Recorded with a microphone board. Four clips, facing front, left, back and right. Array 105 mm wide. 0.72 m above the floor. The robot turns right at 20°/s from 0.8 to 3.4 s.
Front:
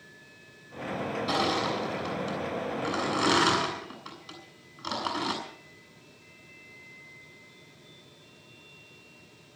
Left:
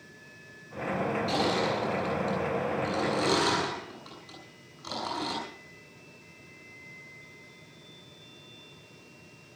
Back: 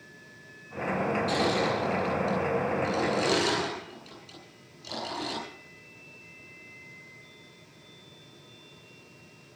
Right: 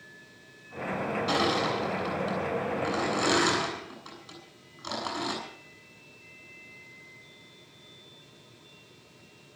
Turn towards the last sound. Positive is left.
turn(degrees=-10)